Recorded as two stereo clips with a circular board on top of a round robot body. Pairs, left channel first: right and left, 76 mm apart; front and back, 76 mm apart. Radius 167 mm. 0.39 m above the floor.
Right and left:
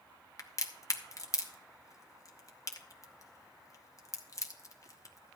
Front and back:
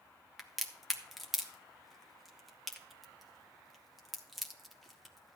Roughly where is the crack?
Right.